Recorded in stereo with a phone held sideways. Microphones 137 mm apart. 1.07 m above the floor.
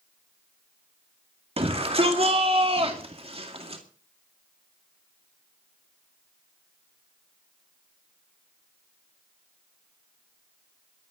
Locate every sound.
1.6 s a shout: 45° right (ahead or behind), 2 m